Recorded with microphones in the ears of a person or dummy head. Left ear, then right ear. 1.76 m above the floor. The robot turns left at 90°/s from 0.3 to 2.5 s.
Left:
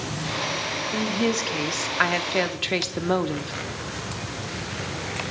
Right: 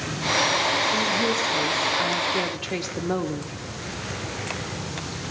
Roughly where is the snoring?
No snoring in this recording.